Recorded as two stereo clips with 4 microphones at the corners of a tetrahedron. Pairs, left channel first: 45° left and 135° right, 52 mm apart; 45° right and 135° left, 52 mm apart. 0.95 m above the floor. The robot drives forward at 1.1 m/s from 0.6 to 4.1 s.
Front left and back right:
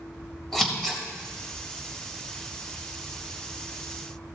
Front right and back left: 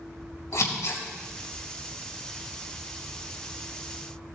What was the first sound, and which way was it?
Scissors, 40° right.